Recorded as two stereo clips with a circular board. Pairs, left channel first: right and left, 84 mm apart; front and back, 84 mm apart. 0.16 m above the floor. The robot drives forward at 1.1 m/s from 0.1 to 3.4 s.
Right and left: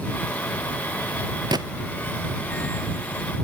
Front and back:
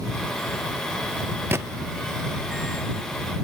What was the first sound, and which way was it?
A gunshot, 120° left.